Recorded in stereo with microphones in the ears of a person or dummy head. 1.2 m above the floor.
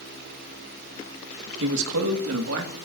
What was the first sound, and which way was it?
A man speaking, 70° right (ahead or behind).